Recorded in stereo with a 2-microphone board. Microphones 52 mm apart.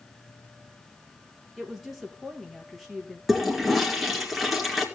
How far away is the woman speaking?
About 2.5 m.